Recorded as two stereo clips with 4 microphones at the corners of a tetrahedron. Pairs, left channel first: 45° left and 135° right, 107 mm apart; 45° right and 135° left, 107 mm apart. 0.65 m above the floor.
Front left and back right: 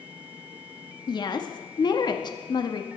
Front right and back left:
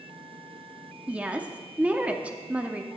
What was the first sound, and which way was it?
A woman speaking, 65° left.